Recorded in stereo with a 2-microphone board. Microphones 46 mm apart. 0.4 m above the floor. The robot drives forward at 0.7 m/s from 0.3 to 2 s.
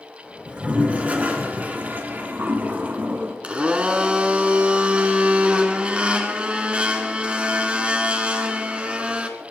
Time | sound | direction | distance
0.5 | a toilet flushing | 30° right (ahead or behind) | 3 m
3.4 | a blender | 25° right (ahead or behind) | 1.9 m